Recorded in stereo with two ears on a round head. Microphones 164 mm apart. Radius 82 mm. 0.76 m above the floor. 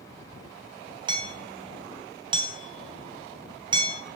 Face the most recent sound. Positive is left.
turn(degrees=-30)  # may be behind; listen again after turning